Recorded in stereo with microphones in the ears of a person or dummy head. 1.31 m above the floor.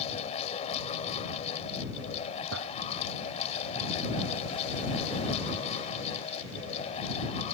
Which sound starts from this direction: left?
A fan, at 0.0 s.